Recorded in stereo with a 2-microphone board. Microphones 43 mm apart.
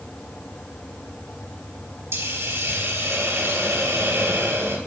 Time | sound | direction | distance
2.1 | a hiss | 85° right | 2.5 m